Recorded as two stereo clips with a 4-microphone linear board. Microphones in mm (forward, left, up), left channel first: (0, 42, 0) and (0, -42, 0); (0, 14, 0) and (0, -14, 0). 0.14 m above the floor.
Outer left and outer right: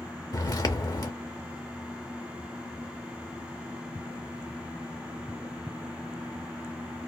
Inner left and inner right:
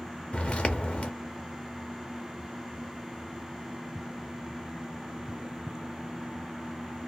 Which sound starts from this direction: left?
Footsteps, at 0.3 s.